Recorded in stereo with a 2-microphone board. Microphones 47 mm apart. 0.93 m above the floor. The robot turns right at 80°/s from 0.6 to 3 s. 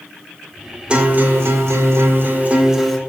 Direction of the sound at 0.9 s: 160° right.